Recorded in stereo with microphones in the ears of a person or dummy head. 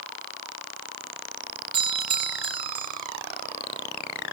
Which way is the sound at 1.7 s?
30° right (ahead or behind).